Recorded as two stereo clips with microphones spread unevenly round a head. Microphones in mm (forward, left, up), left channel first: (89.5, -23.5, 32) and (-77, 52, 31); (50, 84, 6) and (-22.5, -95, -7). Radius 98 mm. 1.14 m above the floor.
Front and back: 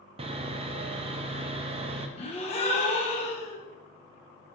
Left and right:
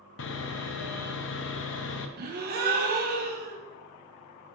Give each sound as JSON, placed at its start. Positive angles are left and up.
{"t": 0.2, "sound": "sawing", "azimuth_deg": 95, "distance_m": 0.6}
{"t": 2.2, "sound": "a gasp", "azimuth_deg": -80, "distance_m": 1.1}